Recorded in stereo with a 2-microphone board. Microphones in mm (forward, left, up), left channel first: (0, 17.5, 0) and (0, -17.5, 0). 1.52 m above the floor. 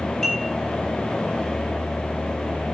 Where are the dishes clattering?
10° left (ahead or behind), 6.5 m.